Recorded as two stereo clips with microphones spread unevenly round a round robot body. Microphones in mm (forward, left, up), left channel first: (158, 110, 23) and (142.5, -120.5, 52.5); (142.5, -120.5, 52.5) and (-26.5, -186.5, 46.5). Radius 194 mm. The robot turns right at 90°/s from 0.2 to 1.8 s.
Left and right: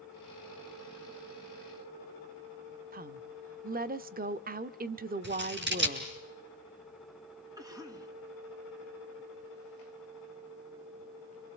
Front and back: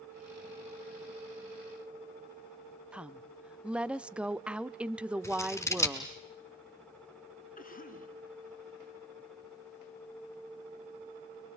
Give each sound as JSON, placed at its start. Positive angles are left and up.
{"t": 2.9, "sound": "a woman speaking", "azimuth_deg": -80, "distance_m": 0.9}
{"t": 5.2, "sound": "scissors", "azimuth_deg": -55, "distance_m": 5.0}
{"t": 7.6, "sound": "a cough", "azimuth_deg": -20, "distance_m": 4.5}